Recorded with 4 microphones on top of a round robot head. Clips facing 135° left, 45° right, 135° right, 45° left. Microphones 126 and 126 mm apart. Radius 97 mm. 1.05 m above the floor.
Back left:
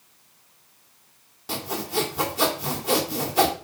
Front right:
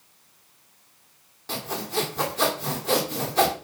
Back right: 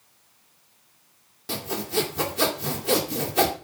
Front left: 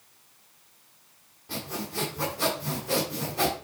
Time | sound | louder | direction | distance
1.5 | sawing | back left 1 dB, back right 7 dB | 145° right | 2 m